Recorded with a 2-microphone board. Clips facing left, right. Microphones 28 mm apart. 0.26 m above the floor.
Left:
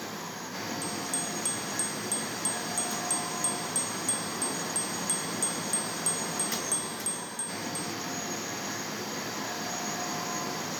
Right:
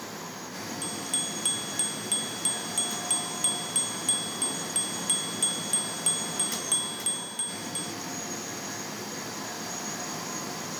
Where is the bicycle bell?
60° right (ahead or behind).